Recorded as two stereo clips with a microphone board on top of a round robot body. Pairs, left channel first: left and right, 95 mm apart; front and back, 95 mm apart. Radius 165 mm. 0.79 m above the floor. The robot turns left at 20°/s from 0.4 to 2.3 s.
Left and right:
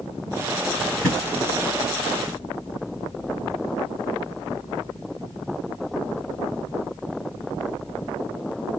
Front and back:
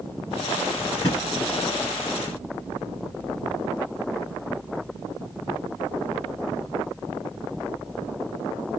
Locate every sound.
1.0 s a thud: 20° left, 0.7 m; by 1.2 s 15° left, 0.7 m